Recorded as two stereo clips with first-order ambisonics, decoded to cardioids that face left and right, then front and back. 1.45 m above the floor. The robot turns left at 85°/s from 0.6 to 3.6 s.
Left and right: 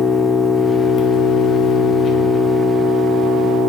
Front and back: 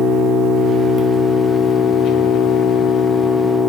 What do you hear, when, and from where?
0.0 s an engine running: 160° left, 0.9 m; by 3.7 s 95° right, 0.9 m